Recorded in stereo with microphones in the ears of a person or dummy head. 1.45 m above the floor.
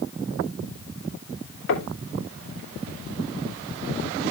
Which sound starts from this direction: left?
Knocking, at 1.7 s.